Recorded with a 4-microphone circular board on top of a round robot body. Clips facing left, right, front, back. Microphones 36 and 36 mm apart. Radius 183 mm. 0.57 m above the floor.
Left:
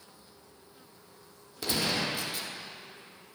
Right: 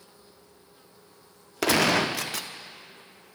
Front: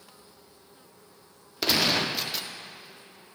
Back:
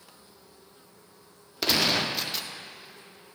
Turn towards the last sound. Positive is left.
turn(degrees=-90)